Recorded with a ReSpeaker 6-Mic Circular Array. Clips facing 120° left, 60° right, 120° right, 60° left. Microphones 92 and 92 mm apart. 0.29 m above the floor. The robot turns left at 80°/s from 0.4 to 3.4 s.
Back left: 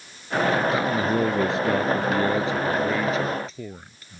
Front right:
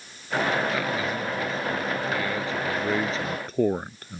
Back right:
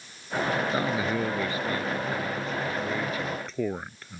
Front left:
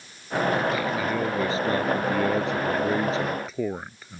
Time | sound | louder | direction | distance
0.7 | a man speaking | back left 5 dB, front left 1 dB | 170° right | ?